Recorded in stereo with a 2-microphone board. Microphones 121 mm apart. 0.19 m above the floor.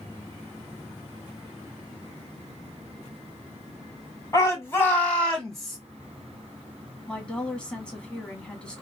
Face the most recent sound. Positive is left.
turn(degrees=10)  # may be behind; listen again after turning